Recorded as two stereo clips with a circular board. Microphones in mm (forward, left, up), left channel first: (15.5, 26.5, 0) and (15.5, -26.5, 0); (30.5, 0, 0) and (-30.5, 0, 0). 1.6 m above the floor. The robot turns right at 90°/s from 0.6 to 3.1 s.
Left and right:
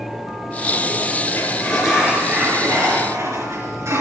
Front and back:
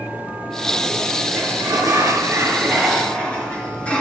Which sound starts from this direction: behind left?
A sliding door, at 1.4 s.